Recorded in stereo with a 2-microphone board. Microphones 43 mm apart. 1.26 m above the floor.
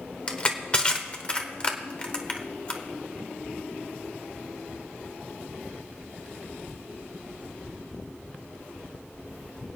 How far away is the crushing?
About 1.0 m.